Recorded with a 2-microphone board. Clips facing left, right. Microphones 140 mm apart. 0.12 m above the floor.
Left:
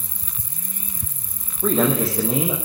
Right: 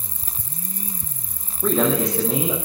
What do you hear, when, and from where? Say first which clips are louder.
1.6 s a man speaking: even; 5° left (ahead or behind), 7.5 m